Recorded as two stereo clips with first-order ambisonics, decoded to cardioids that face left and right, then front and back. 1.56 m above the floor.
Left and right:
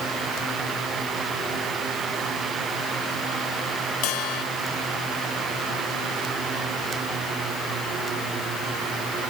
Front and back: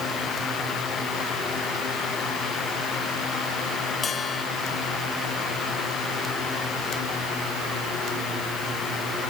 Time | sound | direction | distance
4.0 | a bell | 65° left | ?